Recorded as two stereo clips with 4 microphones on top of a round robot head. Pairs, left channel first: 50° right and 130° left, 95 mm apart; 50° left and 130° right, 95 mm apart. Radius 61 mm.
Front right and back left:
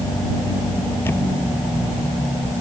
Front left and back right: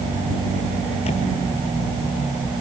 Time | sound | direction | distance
1.1 | a camera shutter | 20° left | ?